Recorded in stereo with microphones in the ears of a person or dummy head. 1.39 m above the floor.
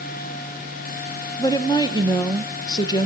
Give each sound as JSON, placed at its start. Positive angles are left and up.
{"t": 1.4, "sound": "a woman speaking", "side_deg": 25, "distance_m": 1.0}